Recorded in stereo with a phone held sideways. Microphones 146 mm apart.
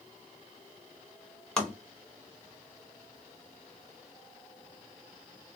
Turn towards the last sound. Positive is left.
turn(degrees=5)  # may be behind; listen again after turning